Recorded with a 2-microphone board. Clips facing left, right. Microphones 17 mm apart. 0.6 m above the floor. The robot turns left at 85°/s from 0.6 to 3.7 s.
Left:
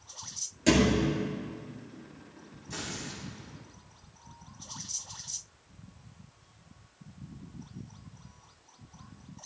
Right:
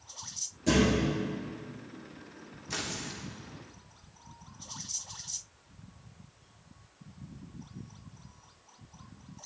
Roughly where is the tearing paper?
Behind right.